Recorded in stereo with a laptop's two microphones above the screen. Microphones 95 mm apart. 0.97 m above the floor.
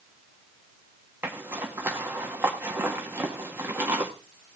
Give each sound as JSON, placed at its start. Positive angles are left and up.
{"t": 1.2, "sound": "a zipper", "side_deg": -20, "distance_m": 1.7}